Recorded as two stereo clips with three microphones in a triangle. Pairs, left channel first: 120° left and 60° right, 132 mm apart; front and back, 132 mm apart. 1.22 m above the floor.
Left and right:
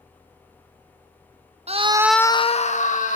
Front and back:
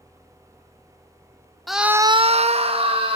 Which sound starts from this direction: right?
A scream, at 1.7 s.